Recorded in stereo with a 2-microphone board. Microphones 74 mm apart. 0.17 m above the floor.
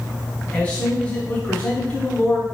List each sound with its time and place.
0.5 s a man speaking: 20° left (ahead or behind), 1.1 m